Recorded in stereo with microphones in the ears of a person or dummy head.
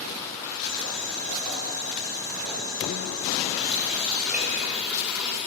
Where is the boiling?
15° left (ahead or behind), 5 m.